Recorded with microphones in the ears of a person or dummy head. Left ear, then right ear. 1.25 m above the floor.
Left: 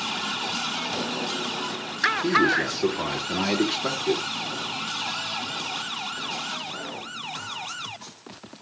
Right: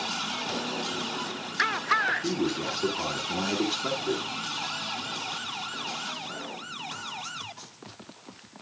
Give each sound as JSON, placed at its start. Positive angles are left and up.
{"t": 2.2, "sound": "a man speaking", "side_deg": 20, "distance_m": 2.5}